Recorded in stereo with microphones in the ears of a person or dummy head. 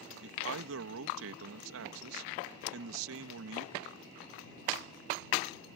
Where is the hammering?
85° left.